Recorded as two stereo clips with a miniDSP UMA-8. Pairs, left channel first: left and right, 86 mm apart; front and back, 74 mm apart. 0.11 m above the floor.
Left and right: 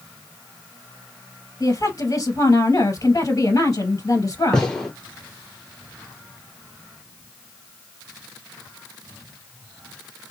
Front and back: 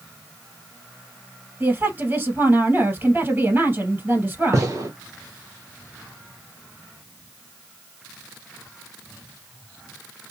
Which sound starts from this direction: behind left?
A woman speaking, at 1.6 s.